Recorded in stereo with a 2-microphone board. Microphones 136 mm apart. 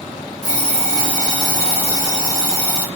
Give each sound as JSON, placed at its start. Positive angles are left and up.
{"t": 0.4, "sound": "an alarm clock", "side_deg": -60, "distance_m": 1.5}